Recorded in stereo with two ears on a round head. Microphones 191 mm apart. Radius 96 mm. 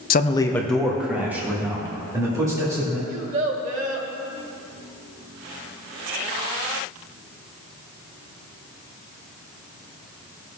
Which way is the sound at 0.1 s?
45° left (ahead or behind).